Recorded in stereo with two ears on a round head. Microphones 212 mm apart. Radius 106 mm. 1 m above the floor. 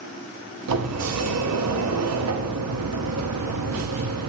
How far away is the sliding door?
About 0.7 m.